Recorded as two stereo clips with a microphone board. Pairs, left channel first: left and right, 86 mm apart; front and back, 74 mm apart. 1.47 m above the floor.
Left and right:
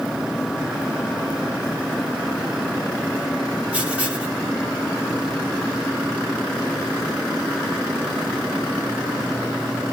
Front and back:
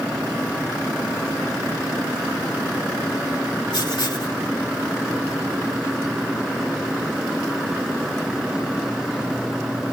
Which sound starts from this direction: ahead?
Writing, at 3.7 s.